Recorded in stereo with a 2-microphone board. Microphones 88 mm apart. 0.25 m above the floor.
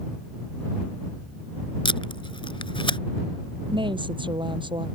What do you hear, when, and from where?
1.9 s tape being pulled: 75° left (ahead or behind)
3.7 s a woman speaking: 70° right (ahead or behind)